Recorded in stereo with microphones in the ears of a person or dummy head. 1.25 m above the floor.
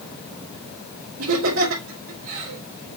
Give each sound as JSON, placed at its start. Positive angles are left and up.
{"t": 1.2, "sound": "laughter", "side_deg": -70, "distance_m": 4.0}